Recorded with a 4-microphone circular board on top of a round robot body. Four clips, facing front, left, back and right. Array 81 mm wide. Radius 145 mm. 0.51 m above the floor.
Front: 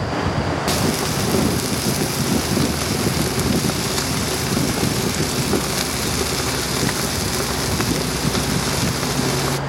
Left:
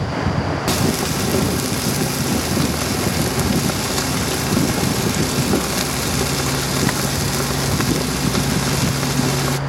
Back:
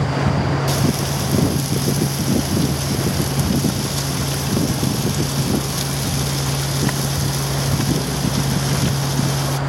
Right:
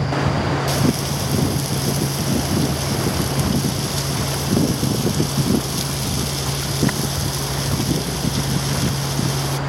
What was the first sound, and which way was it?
Frying, 50° left.